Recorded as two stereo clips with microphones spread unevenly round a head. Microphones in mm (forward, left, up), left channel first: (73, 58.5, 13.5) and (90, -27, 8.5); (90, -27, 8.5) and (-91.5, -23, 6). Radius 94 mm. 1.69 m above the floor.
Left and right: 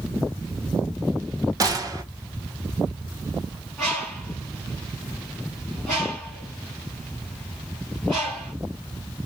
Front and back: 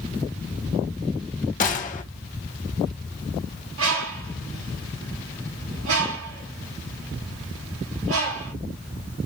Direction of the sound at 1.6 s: 40° right.